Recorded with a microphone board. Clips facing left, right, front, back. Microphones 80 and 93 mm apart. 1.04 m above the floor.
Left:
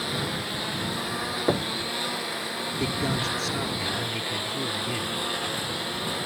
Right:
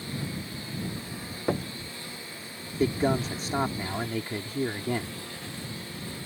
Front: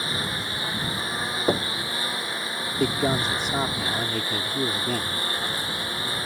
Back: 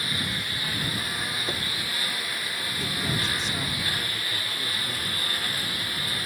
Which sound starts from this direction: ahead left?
A lawn mower, at 0.0 s.